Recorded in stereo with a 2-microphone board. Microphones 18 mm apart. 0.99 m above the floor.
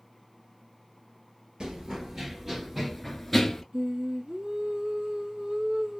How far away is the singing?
About 0.9 m.